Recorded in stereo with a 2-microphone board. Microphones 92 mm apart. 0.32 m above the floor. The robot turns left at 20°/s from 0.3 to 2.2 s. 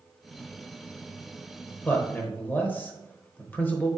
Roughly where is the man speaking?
Centre.